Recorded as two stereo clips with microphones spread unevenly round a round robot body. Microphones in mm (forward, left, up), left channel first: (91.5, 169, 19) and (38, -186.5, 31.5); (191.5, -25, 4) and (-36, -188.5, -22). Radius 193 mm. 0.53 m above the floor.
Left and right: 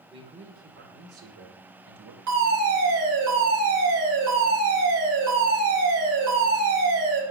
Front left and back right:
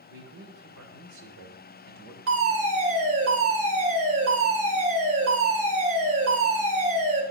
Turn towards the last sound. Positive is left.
turn(degrees=-135)